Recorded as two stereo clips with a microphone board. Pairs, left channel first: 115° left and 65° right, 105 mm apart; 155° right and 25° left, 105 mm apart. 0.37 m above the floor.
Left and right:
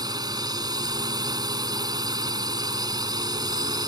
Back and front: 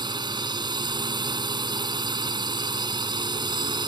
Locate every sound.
0.0 s a drone: 20° right